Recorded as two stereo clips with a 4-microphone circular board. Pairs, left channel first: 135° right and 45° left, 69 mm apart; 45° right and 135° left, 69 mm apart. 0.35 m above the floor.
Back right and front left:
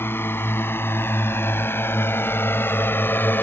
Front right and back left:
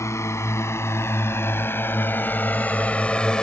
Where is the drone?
80° right; by 3.4 s 115° right.